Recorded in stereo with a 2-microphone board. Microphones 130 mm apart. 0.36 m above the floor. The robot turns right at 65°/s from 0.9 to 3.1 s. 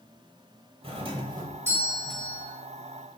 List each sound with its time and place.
0.8 s a doorbell: 75° right, 1.8 m; by 2.5 s 25° left, 1.8 m